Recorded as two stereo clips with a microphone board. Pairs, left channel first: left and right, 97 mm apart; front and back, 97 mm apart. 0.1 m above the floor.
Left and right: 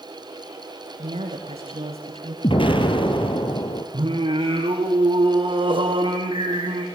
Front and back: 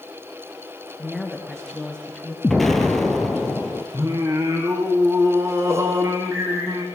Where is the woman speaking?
85° right, 7.5 m; by 2.3 s 80° right, 8 m.